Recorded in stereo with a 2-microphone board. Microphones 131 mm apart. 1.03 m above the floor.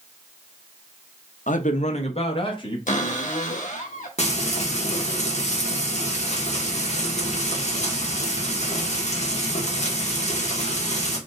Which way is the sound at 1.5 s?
75° left (ahead or behind).